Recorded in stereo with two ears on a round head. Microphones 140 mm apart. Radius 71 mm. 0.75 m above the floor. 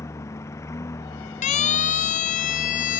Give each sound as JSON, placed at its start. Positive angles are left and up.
{"t": 0.0, "sound": "a lawn mower", "side_deg": 20}
{"t": 1.4, "sound": "a siren", "side_deg": 45}